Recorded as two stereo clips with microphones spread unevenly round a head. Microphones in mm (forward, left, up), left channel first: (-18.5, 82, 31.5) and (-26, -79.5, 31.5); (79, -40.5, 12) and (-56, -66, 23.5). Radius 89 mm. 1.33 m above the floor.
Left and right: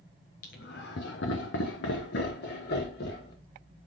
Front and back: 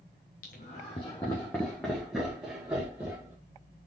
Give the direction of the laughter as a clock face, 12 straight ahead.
10 o'clock.